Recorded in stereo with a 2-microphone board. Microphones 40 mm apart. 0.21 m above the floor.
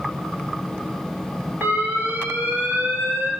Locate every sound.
1.6 s an alarm: 75° right (ahead or behind), 3 m